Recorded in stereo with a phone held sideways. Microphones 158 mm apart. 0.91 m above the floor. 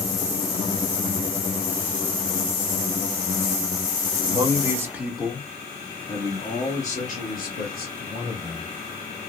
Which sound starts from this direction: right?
A man speaking, at 4.3 s.